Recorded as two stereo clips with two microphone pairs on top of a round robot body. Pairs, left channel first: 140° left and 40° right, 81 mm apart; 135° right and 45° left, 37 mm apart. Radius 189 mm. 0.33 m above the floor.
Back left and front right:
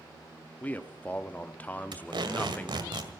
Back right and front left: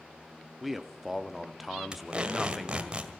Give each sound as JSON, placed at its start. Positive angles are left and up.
{"t": 0.6, "sound": "a man speaking", "azimuth_deg": 110, "distance_m": 1.0}
{"t": 1.9, "sound": "tape being pulled", "azimuth_deg": -20, "distance_m": 2.0}